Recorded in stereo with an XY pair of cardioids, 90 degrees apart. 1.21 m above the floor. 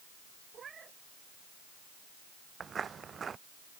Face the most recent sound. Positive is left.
turn(degrees=-50)